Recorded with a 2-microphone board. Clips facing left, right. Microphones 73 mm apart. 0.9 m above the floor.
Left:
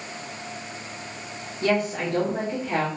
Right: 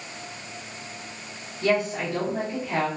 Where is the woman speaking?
45° left (ahead or behind), 1.4 m.